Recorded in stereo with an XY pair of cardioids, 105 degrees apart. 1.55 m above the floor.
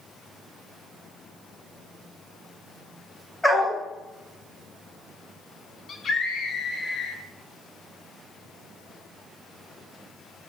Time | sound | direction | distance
3.4 | a dog barking | 10° left | 3.5 m
5.9 | a scream | 45° left | 3 m